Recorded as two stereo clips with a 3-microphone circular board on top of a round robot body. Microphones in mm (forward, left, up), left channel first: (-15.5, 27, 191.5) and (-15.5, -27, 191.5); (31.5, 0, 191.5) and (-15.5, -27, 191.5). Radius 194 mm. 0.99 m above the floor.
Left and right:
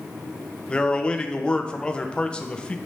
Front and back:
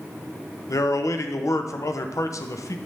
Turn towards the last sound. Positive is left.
turn(degrees=20)